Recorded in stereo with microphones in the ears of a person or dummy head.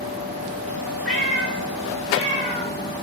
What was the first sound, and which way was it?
A cat meowing, centre (ahead or behind).